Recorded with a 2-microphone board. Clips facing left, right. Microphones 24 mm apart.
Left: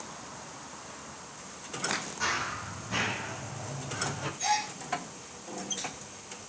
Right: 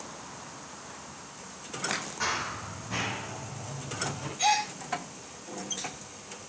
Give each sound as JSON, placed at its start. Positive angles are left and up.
{"t": 2.2, "sound": "running footsteps", "side_deg": -15, "distance_m": 4.0}
{"t": 4.4, "sound": "a gasp", "side_deg": -45, "distance_m": 6.0}